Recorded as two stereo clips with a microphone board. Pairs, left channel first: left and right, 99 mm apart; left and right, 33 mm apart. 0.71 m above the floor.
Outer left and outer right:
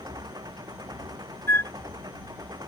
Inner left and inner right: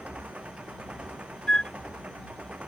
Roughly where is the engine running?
Right.